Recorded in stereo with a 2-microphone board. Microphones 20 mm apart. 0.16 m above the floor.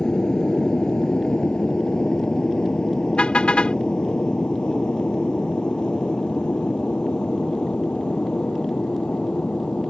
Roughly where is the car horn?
Left.